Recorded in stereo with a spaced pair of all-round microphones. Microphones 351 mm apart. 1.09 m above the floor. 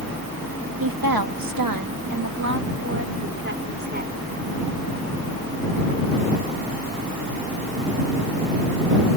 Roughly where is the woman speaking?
Right.